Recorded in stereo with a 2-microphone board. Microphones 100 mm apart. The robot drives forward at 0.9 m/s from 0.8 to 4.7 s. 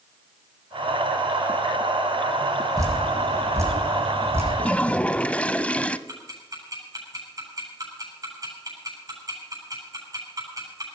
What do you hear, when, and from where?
2.8 s dripping: 35° right (ahead or behind), 5.5 m; by 4.5 s 25° right (ahead or behind), 7 m
4.6 s a toilet flushing: 15° left (ahead or behind), 0.7 m
6.1 s ticking: 35° right (ahead or behind), 8.5 m